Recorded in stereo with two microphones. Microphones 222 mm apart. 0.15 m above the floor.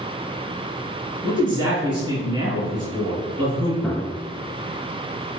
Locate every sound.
1.2 s a man speaking: 20° right (ahead or behind), 1.7 m
3.8 s a gunshot: 5° left (ahead or behind), 1.2 m